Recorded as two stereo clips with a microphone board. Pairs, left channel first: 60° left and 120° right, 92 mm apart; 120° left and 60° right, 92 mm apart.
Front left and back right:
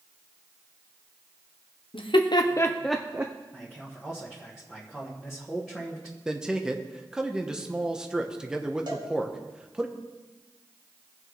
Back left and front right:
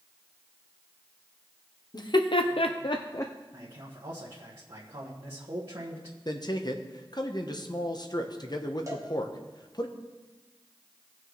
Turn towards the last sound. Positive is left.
turn(degrees=-105)